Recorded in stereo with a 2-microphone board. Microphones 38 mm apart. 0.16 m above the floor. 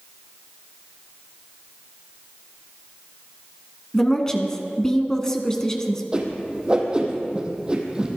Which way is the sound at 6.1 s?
25° right (ahead or behind).